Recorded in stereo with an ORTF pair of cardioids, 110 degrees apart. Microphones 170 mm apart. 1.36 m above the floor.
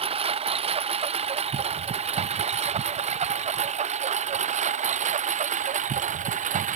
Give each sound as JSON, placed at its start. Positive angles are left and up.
{"t": 0.0, "sound": "a lawn mower", "azimuth_deg": -35}